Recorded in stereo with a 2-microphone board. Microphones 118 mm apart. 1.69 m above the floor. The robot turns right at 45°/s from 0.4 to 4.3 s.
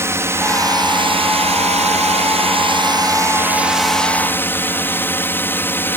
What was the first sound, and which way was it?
A drone, 155° right.